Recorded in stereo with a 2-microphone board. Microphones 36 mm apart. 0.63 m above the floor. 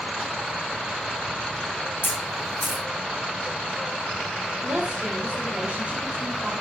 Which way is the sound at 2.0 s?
80° left.